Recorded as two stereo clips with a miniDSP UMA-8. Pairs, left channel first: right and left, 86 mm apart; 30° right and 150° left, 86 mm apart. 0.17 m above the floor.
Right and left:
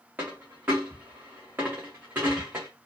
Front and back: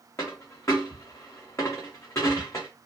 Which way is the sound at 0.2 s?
25° left.